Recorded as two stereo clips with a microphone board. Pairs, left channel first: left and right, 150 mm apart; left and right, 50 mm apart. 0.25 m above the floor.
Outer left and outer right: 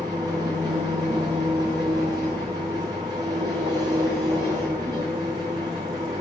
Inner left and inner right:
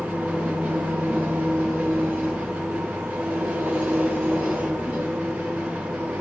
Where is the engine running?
25° right (ahead or behind), 2.5 m.